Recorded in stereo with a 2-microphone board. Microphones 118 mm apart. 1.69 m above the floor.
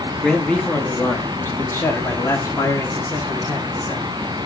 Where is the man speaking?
5° left (ahead or behind), 2 m; by 4.1 s 35° left (ahead or behind), 4 m.